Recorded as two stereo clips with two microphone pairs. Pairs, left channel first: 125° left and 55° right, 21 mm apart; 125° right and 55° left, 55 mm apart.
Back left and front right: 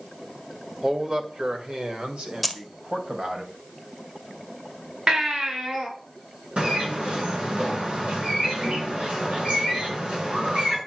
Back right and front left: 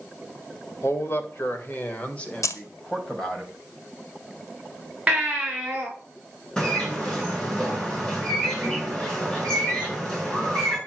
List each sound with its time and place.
0.8 s a man speaking: 100° right, 2.5 m; by 3.4 s 40° right, 3.5 m
2.4 s keys jangling: 140° right, 1.3 m
5.1 s a baby crying: 20° right, 6.5 m
6.6 s a bird: 50° right, 7 m